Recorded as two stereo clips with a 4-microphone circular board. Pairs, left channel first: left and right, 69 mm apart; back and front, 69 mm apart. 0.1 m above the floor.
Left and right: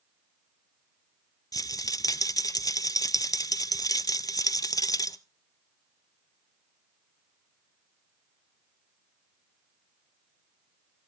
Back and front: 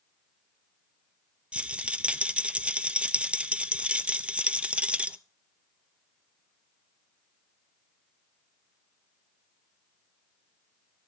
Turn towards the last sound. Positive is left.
turn(degrees=70)